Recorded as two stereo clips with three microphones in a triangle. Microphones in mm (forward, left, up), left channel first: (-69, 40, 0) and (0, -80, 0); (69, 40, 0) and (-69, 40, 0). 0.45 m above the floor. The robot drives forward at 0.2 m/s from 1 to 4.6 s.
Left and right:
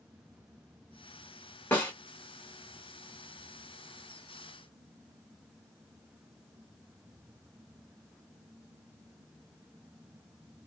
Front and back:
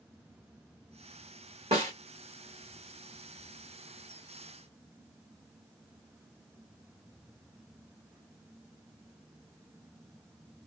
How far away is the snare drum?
About 1.7 m.